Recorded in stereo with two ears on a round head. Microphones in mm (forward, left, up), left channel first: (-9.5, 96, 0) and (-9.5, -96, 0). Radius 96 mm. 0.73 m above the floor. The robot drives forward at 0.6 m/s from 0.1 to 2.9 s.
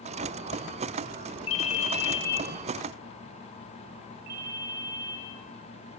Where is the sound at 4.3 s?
45° right (ahead or behind), 6 m.